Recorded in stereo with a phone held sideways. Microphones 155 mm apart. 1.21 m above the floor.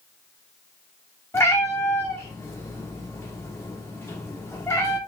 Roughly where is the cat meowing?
Centre.